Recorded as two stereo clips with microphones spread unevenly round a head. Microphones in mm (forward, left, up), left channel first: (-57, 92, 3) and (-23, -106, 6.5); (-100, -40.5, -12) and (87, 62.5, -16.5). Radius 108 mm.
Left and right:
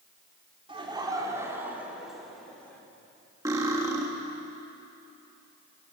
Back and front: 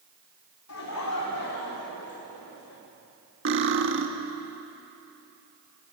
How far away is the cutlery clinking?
About 1.5 m.